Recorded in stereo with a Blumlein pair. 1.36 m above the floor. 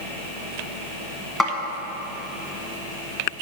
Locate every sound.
1.4 s a snare drum: straight ahead, 1.5 m